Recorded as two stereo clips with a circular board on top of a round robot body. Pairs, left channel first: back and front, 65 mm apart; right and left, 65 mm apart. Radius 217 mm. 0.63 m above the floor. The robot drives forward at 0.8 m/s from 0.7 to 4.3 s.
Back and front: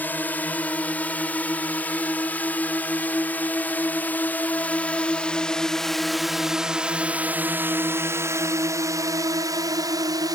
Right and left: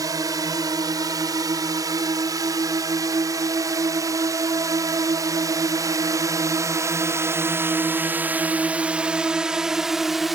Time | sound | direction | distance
0.0 | a drone | 115° left | ?